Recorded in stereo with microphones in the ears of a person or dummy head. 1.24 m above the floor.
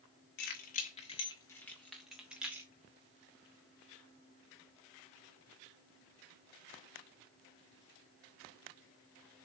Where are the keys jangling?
50° left (ahead or behind), 1.5 m; by 2.7 s 15° right (ahead or behind), 2.5 m.